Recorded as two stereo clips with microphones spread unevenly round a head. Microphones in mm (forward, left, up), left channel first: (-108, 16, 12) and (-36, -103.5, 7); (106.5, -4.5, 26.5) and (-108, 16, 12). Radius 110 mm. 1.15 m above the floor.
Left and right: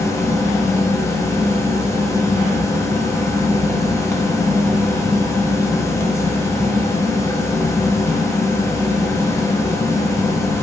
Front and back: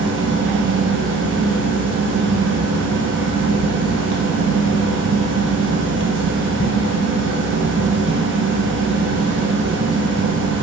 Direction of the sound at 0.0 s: 170° right.